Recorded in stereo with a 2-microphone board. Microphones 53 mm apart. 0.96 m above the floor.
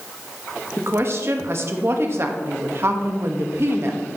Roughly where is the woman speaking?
Right.